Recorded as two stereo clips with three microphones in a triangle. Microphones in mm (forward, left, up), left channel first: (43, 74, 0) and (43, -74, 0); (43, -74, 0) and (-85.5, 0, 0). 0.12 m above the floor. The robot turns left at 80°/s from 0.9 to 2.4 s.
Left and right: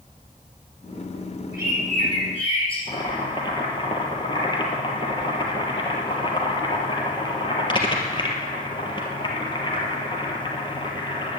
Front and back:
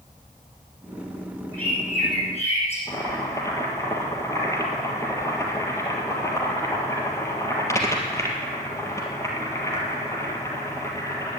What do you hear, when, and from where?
1.5 s a bird: 80° left, 6 m; by 2.8 s 10° left, 6 m
2.9 s boiling: 35° left, 3 m